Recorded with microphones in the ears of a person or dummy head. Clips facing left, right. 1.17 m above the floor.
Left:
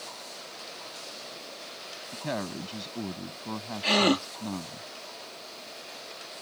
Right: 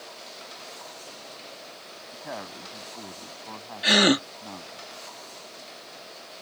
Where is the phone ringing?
I don't hear a phone ringing.